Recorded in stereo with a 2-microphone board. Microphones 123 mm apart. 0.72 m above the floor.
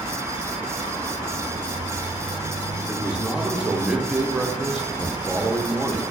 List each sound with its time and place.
2.9 s a man speaking: 5° right (ahead or behind), 0.7 m